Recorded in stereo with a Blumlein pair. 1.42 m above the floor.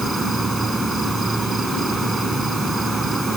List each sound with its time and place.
0.0 s an insect: 5° right